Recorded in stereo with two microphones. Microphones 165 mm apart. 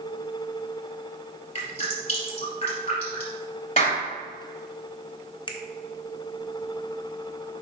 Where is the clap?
45° left (ahead or behind), 2.5 m.